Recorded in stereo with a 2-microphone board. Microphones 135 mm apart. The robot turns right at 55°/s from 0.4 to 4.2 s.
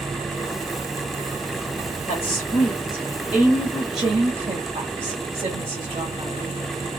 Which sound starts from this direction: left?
A woman speaking, at 2.1 s.